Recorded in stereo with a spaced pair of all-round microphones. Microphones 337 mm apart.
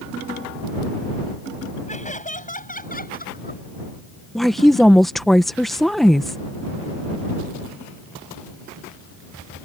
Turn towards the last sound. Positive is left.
turn(degrees=0)  # may be behind; listen again after turning